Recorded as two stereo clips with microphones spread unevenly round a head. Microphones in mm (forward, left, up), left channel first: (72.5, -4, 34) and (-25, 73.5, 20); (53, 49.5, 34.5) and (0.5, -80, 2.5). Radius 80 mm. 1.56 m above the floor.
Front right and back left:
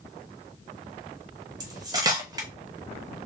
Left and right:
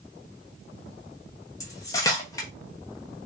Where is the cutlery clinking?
90° left, 0.9 m.